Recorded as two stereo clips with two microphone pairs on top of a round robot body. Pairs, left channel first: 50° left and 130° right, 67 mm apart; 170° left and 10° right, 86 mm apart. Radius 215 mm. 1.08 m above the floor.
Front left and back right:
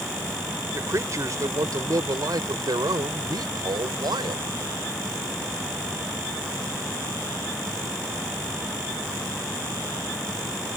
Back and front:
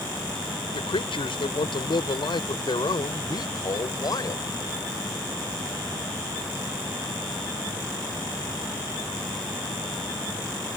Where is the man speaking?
175° right; by 4.5 s 145° right.